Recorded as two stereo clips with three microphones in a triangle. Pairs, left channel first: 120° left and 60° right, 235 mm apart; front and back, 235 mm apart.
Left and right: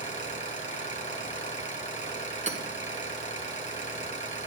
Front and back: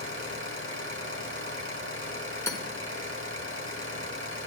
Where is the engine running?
175° left, 2.5 m.